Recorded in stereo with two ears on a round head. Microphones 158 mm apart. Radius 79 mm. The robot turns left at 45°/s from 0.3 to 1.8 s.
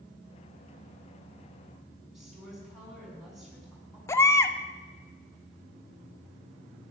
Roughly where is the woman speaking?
Centre.